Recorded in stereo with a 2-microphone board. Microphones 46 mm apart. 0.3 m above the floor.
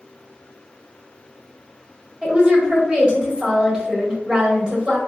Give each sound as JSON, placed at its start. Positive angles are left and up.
{"t": 2.2, "sound": "a woman speaking", "side_deg": -20, "distance_m": 0.9}